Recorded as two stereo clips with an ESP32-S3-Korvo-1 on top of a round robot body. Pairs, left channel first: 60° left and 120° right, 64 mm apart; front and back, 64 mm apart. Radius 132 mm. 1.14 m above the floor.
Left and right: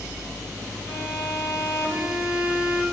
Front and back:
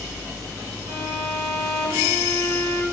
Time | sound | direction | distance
0.9 | a violin | 165° right | 1.7 m